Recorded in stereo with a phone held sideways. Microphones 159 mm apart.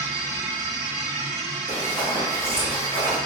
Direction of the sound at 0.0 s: 25° right (ahead or behind).